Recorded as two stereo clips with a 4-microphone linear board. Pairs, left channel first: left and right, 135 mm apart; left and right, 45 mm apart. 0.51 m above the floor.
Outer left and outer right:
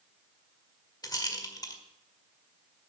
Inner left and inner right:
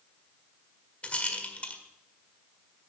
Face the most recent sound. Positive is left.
turn(degrees=30)  # may be behind; listen again after turning